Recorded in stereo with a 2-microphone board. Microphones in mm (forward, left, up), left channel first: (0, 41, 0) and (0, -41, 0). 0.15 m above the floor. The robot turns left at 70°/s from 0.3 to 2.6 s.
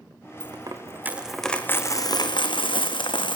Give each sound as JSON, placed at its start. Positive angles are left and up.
{"t": 0.4, "sound": "a dropped coin", "azimuth_deg": -115, "distance_m": 1.8}